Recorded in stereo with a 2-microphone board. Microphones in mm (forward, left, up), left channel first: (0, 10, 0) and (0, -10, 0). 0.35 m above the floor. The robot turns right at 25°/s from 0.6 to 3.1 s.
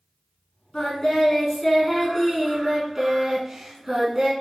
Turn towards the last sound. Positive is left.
turn(degrees=-155)